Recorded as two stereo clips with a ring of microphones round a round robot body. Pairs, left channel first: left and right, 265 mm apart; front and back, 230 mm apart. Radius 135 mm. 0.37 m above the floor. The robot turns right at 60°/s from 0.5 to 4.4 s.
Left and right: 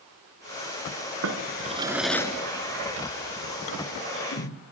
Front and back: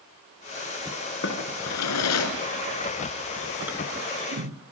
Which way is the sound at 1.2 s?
50° right.